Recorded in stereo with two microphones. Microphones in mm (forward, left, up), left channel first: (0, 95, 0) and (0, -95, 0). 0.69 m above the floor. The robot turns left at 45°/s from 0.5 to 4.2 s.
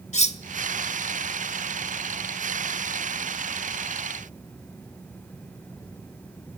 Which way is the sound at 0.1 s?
35° left (ahead or behind).